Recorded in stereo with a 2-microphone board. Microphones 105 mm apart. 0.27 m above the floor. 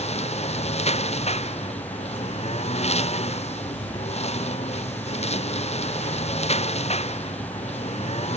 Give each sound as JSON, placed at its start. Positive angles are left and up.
{"t": 0.0, "sound": "a lawn mower", "side_deg": 90}